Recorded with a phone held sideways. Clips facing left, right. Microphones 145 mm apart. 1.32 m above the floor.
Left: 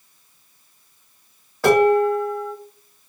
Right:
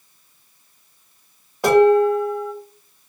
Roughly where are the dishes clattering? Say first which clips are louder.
Right 2 dB; centre.